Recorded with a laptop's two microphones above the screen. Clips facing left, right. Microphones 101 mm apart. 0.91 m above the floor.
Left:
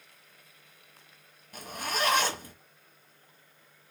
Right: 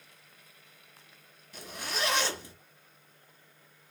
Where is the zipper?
50° left (ahead or behind), 1.4 m.